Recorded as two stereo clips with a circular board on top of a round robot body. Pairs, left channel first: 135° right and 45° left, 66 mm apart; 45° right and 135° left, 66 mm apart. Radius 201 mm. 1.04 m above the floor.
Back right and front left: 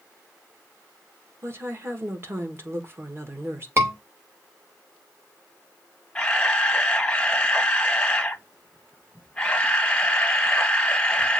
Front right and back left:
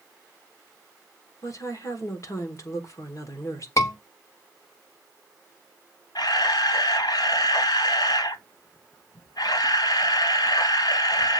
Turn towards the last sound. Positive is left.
turn(degrees=-60)